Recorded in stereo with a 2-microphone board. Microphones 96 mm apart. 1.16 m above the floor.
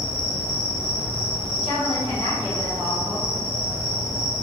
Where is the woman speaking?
70° left (ahead or behind), 1.6 m.